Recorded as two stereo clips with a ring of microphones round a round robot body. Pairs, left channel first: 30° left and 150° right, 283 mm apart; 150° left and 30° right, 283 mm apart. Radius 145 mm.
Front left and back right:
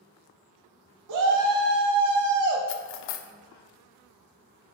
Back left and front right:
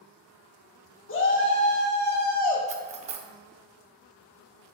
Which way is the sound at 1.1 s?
165° right.